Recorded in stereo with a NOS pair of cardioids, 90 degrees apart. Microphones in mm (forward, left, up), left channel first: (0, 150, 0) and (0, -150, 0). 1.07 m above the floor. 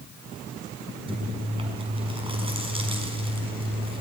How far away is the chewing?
About 5.5 m.